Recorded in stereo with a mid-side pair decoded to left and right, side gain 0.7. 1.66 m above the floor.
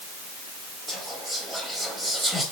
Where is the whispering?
Straight ahead, 0.9 m.